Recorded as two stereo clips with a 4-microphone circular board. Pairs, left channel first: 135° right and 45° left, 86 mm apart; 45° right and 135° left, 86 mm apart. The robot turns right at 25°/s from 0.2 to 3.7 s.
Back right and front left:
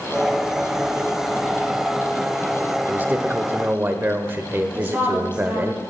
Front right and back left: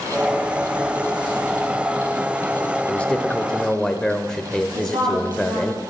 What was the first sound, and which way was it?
A man speaking, 10° left.